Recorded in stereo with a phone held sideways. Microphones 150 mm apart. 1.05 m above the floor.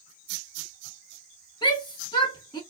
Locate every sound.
1.6 s a shout: 30° left (ahead or behind), 1.4 m